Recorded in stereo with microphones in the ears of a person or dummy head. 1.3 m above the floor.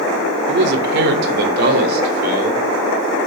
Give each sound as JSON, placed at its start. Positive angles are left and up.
{"t": 0.5, "sound": "a man speaking", "side_deg": -65, "distance_m": 3.0}